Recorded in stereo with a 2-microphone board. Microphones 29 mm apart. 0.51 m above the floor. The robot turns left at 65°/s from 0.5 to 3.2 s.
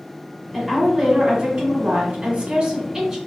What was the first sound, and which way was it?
A woman speaking, straight ahead.